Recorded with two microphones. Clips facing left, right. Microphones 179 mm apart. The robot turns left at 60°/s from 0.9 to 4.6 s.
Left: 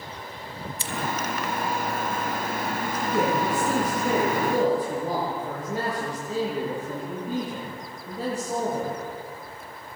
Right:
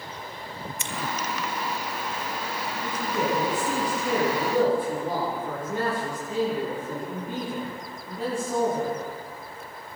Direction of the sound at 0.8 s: 35° left (ahead or behind).